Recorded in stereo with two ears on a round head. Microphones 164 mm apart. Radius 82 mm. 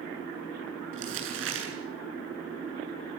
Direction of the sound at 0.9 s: 75° right (ahead or behind).